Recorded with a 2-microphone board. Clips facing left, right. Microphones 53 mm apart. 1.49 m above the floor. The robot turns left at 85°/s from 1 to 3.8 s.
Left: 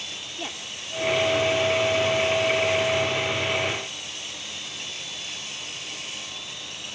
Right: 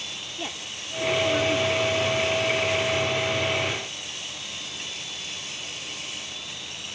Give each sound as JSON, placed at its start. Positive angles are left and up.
{"t": 0.4, "sound": "a woman speaking", "azimuth_deg": 0}